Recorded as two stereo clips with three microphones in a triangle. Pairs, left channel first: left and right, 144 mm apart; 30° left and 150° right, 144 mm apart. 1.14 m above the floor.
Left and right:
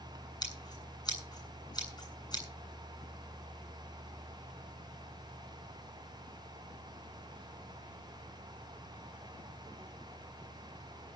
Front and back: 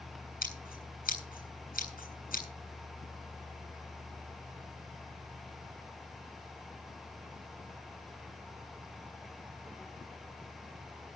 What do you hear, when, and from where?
0.4 s scissors: 30° left, 8 m